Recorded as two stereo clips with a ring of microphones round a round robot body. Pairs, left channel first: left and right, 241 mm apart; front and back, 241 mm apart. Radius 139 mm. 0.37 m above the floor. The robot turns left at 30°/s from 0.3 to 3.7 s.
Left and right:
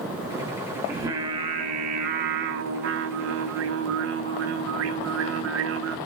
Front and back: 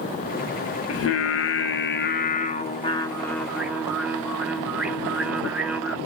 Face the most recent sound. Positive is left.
turn(degrees=-95)